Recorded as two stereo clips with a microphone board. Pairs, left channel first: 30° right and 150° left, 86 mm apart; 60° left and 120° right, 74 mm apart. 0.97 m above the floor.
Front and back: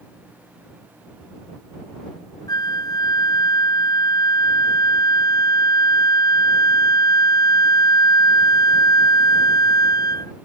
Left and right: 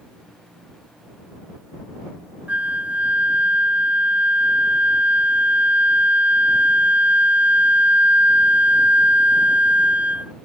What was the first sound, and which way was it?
A flute, 55° right.